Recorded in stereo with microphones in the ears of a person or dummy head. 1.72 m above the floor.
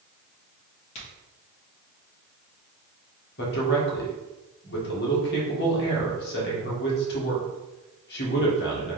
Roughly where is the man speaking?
Left.